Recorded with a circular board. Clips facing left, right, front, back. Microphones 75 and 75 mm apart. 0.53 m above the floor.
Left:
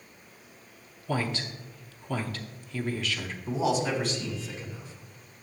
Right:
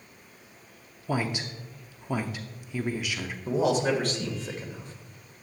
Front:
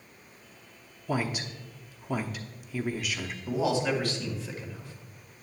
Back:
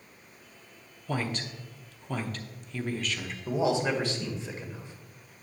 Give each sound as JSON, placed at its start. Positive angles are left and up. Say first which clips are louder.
{"t": 1.1, "sound": "a woman speaking", "louder": "right 1 dB, front 2 dB", "azimuth_deg": -60, "distance_m": 0.7}
{"t": 3.5, "sound": "a man speaking", "louder": "right 3 dB, back 1 dB", "azimuth_deg": -115, "distance_m": 2.0}